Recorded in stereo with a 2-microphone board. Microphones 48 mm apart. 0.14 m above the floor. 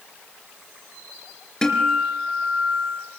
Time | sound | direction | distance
1.6 | a guitar | 15° left (ahead or behind) | 2.5 m